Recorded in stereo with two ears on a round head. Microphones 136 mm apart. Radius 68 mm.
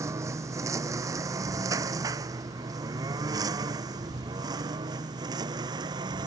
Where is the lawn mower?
20° right (ahead or behind); by 6.3 s 30° right (ahead or behind).